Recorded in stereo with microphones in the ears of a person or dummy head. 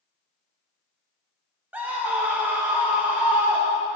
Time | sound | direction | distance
1.7 | a scream | 10° right (ahead or behind) | 0.6 m